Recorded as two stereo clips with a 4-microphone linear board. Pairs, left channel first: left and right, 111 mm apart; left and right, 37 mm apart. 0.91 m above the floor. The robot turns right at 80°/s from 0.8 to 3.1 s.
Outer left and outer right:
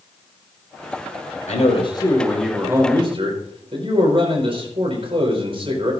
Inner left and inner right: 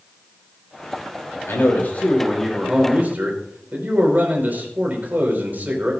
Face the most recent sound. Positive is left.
turn(degrees=-130)